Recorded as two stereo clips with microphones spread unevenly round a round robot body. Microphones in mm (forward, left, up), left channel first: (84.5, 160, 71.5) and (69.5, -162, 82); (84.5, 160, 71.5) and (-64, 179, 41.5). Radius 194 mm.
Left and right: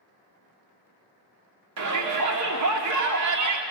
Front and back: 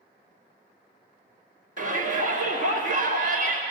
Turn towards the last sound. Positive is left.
turn(degrees=-55)